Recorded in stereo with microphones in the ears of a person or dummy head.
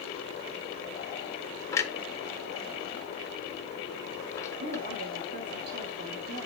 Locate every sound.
1.7 s a clunk: 15° left (ahead or behind), 1.2 m
4.6 s a woman speaking: 50° right (ahead or behind), 2 m